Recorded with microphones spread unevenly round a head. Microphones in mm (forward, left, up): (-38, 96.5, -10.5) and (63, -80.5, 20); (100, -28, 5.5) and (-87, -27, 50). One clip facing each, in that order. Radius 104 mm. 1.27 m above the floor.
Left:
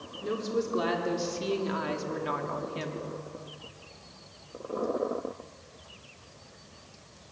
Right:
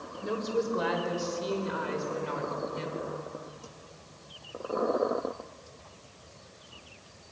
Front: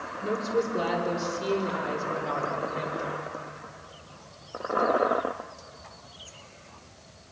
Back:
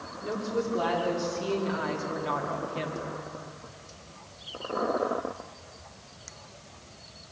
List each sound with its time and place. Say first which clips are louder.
0.2 s a woman speaking: even, front 3 dB; 70° left, 3.5 m; by 3.1 s 120° left, 2.5 m